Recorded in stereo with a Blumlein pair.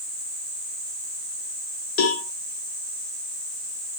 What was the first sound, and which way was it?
A cowbell, 40° left.